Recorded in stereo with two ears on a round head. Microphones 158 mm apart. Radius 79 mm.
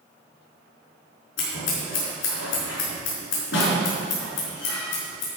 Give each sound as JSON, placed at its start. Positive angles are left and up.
{"t": 1.4, "sound": "scissors", "side_deg": 75, "distance_m": 4.5}